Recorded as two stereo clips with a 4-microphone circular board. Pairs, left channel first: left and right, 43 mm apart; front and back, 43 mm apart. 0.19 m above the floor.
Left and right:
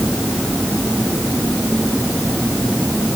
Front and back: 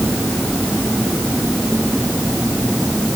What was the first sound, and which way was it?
Only background noise.